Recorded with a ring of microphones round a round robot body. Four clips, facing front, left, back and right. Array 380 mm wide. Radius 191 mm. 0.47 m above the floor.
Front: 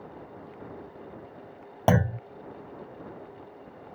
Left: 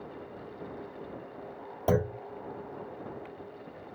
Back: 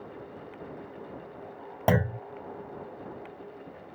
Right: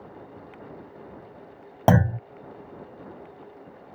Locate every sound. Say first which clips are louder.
1.9 s a clunk: right 7 dB, front 2 dB; 80° right